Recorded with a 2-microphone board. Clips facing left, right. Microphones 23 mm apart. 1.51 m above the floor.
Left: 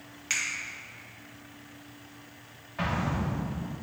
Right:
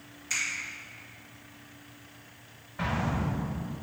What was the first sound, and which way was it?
A finger snap, 50° left (ahead or behind).